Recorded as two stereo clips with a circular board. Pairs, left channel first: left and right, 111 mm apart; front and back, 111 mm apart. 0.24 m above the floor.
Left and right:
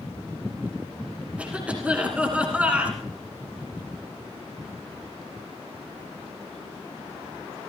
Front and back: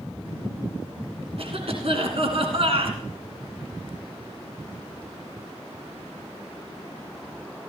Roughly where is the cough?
Behind.